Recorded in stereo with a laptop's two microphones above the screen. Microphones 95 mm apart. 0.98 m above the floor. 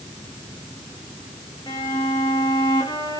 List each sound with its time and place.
1.7 s a violin: 50° left (ahead or behind), 1.9 m